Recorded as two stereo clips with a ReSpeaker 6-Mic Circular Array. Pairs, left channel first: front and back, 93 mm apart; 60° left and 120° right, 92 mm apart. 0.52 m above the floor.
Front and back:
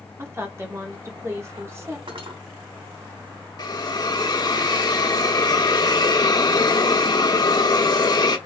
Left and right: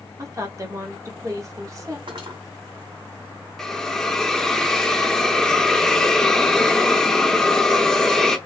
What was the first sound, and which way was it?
A woman speaking, 140° right.